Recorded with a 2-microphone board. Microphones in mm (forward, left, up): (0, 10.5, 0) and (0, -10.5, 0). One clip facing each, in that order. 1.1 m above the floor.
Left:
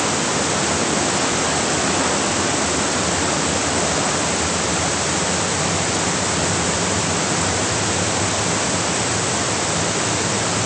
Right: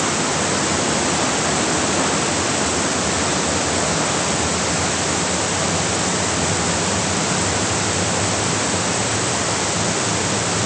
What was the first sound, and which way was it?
Only background noise.